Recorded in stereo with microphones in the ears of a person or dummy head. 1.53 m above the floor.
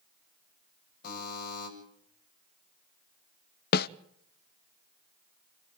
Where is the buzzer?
60° left (ahead or behind), 8 m.